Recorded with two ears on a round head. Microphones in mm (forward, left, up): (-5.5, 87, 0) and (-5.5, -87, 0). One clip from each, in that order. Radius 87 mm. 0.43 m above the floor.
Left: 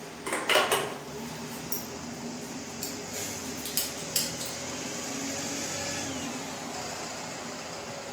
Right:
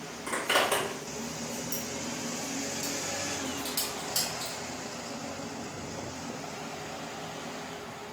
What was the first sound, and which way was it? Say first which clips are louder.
A zipper: left 2 dB; 50° left (ahead or behind).